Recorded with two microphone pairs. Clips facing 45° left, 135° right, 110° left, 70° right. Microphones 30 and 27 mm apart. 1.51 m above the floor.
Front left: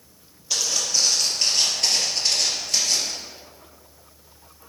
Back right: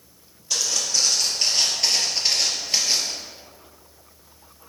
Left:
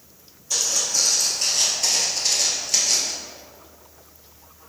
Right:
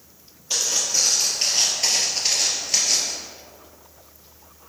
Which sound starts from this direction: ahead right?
Footsteps, at 0.5 s.